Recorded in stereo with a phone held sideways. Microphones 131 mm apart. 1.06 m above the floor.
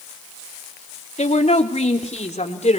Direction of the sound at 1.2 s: 55° left (ahead or behind).